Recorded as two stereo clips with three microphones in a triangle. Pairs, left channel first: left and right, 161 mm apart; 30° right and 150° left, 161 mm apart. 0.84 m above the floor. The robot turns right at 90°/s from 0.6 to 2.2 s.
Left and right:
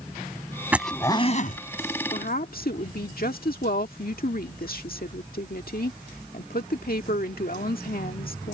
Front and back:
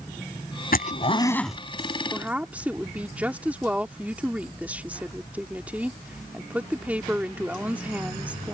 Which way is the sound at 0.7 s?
10° right.